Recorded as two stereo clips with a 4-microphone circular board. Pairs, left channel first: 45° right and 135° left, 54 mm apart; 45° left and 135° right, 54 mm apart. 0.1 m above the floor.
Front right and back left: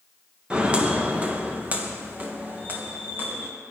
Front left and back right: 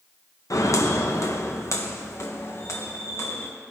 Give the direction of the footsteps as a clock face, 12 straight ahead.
10 o'clock.